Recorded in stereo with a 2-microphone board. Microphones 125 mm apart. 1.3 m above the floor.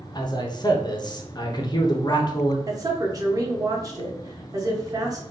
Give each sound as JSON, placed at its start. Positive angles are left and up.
{"t": 0.1, "sound": "a man speaking", "side_deg": 35, "distance_m": 0.6}
{"t": 2.7, "sound": "a woman speaking", "side_deg": -30, "distance_m": 0.8}